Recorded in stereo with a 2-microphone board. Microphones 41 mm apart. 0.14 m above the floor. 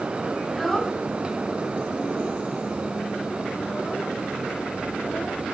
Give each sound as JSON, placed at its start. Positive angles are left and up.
{"t": 0.4, "sound": "a child speaking", "side_deg": 0, "distance_m": 1.1}